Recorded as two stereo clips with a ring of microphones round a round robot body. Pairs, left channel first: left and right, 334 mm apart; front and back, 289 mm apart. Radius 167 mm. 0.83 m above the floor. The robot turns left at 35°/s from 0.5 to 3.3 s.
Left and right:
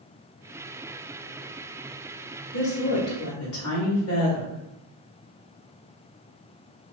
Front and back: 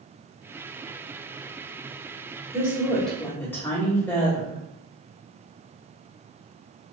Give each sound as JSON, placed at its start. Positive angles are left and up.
{"t": 2.5, "sound": "a woman speaking", "azimuth_deg": 105, "distance_m": 1.2}